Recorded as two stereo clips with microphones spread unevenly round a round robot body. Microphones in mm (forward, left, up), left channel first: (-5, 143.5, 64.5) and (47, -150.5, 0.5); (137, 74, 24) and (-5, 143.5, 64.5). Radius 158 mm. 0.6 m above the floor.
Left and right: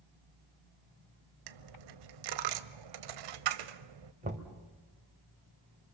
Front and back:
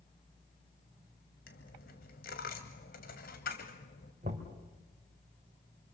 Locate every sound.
1.5 s a dropped coin: 80° right, 1.0 m
4.2 s knocking: 145° right, 2.5 m